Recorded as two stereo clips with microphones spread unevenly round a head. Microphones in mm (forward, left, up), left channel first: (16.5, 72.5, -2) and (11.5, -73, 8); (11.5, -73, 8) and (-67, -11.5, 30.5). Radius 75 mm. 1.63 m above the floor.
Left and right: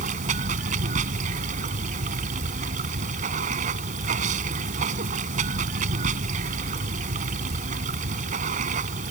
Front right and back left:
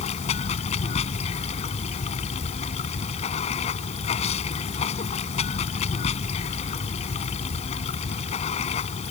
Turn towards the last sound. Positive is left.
turn(degrees=-55)